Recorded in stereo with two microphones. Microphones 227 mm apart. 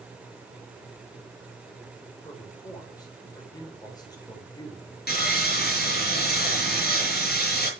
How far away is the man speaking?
About 5 m.